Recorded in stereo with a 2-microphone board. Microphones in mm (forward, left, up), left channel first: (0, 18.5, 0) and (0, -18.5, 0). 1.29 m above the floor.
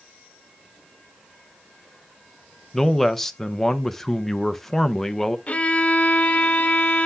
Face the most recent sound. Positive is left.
turn(degrees=35)  # may be behind; listen again after turning